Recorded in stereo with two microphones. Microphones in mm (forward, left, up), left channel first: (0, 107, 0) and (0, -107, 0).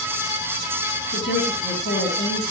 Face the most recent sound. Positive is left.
turn(degrees=65)  # may be behind; listen again after turning